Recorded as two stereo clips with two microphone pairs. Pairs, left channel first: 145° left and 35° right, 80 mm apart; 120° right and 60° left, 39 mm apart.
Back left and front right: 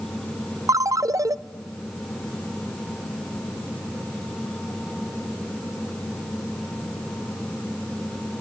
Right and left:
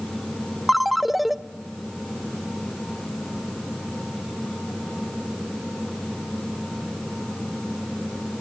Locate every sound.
0.7 s a ringtone: 30° right, 0.6 m